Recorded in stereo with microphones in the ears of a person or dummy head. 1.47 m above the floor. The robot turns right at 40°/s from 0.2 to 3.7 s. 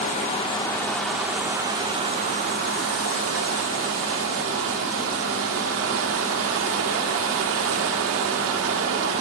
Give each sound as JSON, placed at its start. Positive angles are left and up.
{"t": 0.0, "sound": "running water", "azimuth_deg": 145, "distance_m": 1.2}